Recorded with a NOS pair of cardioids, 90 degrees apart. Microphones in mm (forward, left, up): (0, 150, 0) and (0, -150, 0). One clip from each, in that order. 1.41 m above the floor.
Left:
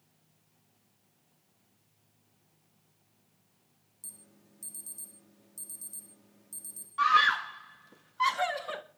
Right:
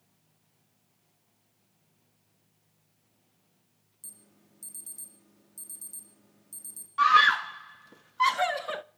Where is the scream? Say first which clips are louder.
Right 4 dB; 20° right, 0.8 m.